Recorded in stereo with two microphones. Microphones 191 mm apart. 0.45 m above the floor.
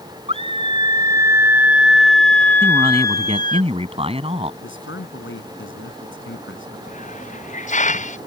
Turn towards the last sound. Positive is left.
turn(degrees=35)  # may be behind; listen again after turning